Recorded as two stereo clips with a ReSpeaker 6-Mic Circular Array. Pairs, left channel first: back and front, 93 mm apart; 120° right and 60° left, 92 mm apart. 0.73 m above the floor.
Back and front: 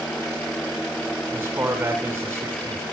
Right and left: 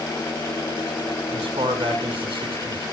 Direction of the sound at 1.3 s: 65° left.